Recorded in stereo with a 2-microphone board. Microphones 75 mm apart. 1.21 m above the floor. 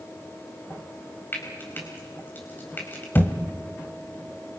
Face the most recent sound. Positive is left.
turn(degrees=25)  # may be behind; listen again after turning